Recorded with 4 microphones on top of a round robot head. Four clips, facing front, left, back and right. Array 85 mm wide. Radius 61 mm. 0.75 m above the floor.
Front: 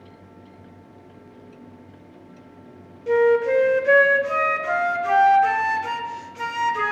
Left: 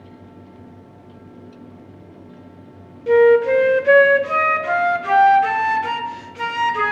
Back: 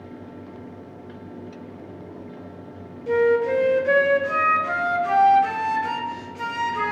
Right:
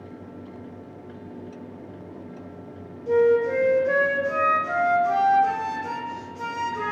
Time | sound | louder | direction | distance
3.1 | a flute | left 7 dB, front 2 dB | 80° left | 0.5 m